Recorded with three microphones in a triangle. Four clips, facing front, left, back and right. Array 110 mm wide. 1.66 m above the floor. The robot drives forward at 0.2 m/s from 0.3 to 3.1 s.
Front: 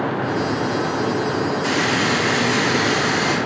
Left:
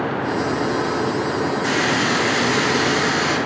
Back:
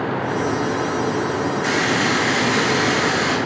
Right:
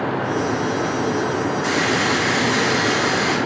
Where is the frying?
175° right, 0.9 m.